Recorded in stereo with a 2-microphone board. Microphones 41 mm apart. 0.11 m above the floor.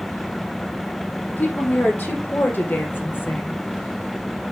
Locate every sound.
1.3 s a woman speaking: 45° left (ahead or behind), 3.5 m; by 3.6 s 55° left (ahead or behind), 2.5 m